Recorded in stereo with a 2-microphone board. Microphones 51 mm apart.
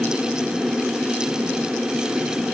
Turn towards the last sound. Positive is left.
No sound to turn to.